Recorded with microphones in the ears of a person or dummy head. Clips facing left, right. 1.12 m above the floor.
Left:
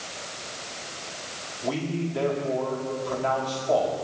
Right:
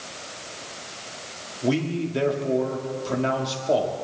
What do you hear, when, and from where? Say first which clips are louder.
1.6 s a man speaking: right 4 dB; 30° right (ahead or behind), 1.8 m